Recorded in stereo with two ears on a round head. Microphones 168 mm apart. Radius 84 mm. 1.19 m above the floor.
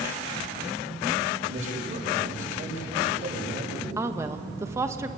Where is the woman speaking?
15° right (ahead or behind), 1.3 m.